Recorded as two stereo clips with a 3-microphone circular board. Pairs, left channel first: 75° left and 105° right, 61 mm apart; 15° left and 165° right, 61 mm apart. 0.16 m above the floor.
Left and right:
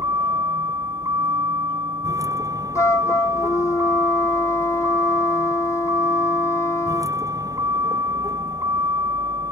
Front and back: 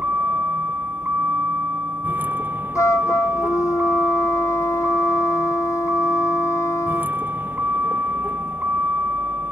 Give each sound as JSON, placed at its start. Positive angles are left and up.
{"t": 0.0, "sound": "a vehicle", "azimuth_deg": -110}
{"t": 2.8, "sound": "a flute", "azimuth_deg": 45}